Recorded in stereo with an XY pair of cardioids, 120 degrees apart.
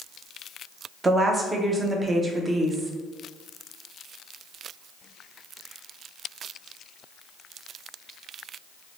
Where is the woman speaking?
20° right, 0.5 m.